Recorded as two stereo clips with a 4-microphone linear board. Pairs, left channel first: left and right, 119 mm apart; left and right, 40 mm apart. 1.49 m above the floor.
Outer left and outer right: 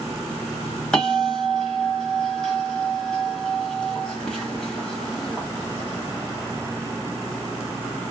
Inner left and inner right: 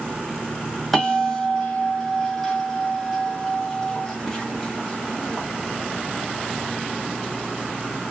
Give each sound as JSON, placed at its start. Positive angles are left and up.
{"t": 0.9, "sound": "a bell", "side_deg": 5, "distance_m": 1.3}